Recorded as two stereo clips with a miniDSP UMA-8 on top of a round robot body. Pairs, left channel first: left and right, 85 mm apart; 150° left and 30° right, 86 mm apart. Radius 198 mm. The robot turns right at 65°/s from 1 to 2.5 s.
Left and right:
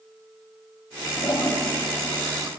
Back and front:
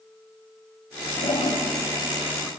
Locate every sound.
1.2 s a toilet flushing: 140° left, 0.9 m; by 2.5 s 135° right, 0.9 m